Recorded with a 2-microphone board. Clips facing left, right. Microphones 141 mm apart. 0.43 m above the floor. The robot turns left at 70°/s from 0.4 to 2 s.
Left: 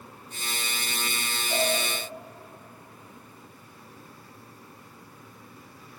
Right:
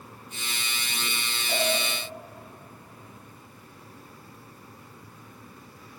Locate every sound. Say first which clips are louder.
1.5 s a cowbell: even; 65° right (ahead or behind), 3.5 m; by 1.7 s 55° right (ahead or behind), 3.5 m